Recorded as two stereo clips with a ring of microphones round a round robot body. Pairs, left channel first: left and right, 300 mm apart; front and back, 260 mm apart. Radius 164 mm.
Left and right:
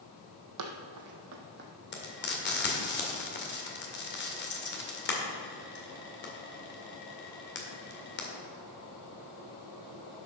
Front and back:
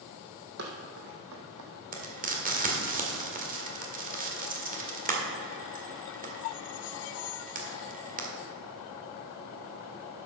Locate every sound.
0.6 s running footsteps: 120° right, 1.5 m; by 1.7 s 150° right, 1.3 m
1.9 s frying: 135° left, 2.0 m